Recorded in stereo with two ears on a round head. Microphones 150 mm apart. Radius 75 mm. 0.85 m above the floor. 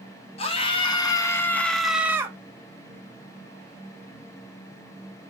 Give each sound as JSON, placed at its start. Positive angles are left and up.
{"t": 0.4, "sound": "a scream", "side_deg": 35, "distance_m": 1.4}